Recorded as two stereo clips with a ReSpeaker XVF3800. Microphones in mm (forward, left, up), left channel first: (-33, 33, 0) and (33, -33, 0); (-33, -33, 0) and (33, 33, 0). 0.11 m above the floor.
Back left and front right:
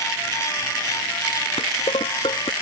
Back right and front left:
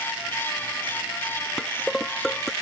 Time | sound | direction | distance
1.6 | dishes clattering | 140° left | ?